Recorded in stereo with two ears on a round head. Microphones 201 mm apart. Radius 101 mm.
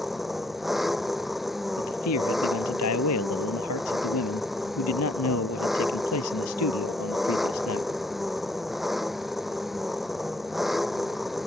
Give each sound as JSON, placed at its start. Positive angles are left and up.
{"t": 0.0, "sound": "an engine running", "side_deg": 0}
{"t": 1.8, "sound": "a man speaking", "side_deg": 80}